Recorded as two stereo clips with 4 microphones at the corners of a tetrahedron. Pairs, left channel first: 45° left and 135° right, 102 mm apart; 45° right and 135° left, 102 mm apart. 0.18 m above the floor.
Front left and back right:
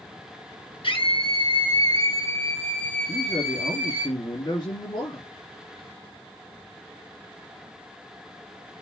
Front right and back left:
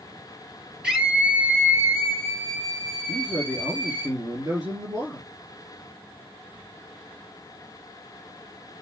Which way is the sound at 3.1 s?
80° left.